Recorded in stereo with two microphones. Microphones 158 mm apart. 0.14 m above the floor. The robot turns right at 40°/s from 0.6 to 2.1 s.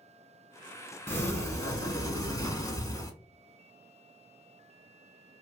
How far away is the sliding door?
About 0.6 m.